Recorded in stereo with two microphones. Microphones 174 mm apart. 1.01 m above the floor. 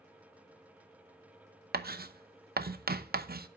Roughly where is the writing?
Right.